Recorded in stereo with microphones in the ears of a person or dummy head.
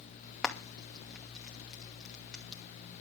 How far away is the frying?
About 2 m.